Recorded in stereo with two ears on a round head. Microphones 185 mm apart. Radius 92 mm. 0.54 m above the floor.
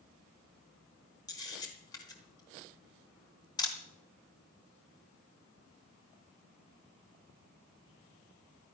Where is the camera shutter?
20° left (ahead or behind), 3.5 m.